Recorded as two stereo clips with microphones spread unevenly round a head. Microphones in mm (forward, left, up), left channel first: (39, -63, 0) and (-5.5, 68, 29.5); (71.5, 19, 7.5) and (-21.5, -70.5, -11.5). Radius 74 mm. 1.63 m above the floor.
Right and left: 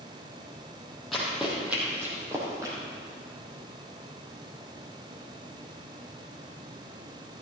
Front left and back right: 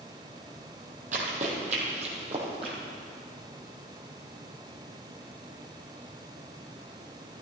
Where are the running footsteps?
170° right, 2.5 m; by 2.8 s 170° left, 3 m.